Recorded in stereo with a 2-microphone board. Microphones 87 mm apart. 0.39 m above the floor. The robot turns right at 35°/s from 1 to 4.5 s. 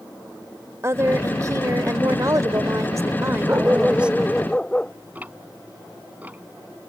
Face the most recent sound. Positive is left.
turn(degrees=-20)  # may be behind; listen again after turning